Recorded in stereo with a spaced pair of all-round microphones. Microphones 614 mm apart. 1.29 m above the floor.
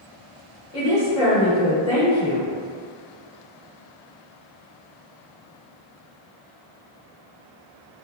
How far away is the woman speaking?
About 1.6 m.